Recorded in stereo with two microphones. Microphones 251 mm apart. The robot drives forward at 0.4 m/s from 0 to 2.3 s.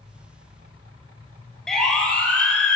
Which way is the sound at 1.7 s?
Centre (ahead or behind).